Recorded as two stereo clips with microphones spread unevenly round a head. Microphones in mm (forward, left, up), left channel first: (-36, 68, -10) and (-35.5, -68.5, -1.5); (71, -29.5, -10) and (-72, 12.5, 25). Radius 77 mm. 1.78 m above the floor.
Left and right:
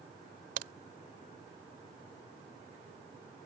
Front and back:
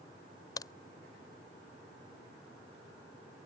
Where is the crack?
90° right.